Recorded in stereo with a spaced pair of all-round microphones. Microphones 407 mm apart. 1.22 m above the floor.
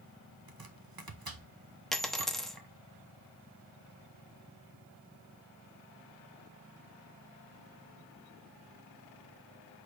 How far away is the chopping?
About 0.8 m.